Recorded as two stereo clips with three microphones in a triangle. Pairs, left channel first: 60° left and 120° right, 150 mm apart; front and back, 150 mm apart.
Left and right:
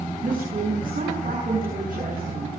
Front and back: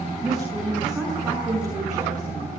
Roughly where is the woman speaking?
Right.